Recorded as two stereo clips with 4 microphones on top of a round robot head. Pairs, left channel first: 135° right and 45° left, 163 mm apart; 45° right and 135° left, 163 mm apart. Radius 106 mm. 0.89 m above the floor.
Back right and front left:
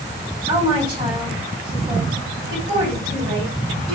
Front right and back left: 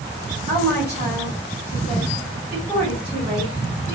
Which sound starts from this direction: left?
A woman speaking, at 0.5 s.